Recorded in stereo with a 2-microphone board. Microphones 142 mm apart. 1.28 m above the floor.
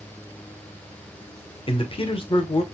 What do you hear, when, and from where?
1.7 s a man speaking: 40° left (ahead or behind), 0.7 m